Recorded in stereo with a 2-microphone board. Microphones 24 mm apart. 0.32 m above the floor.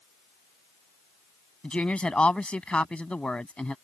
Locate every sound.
1.6 s a woman speaking: 60° left (ahead or behind)